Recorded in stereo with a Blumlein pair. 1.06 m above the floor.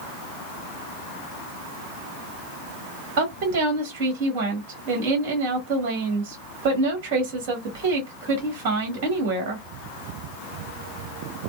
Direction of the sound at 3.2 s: 40° right.